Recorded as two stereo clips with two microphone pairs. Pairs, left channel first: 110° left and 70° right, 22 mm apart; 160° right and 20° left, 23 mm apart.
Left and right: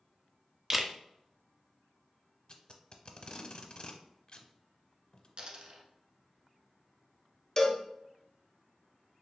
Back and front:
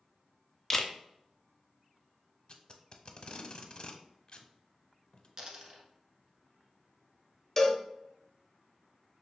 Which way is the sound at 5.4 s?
40° right.